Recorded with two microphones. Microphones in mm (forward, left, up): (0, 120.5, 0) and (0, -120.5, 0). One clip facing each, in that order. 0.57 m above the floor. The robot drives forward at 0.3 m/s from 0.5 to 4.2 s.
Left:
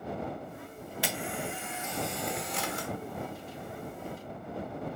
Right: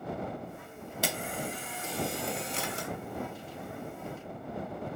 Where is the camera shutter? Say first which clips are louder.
Right 1 dB; 45° right (ahead or behind), 0.7 m; by 2.9 s 30° right (ahead or behind), 1.0 m.